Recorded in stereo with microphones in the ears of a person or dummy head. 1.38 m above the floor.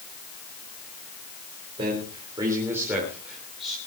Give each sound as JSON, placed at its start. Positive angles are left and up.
{"t": 1.8, "sound": "a man speaking", "side_deg": -35, "distance_m": 4.5}